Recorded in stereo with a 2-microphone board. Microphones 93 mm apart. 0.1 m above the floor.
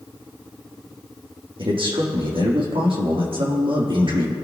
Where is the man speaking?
75° right (ahead or behind), 4 m.